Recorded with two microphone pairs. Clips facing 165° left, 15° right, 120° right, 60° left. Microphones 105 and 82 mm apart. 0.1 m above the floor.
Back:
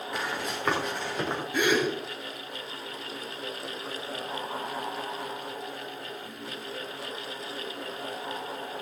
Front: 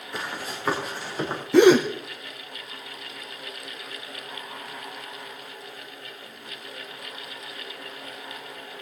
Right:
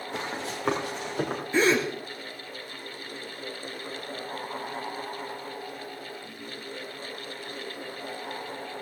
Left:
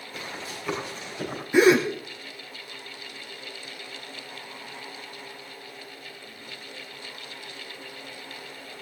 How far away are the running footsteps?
About 5 m.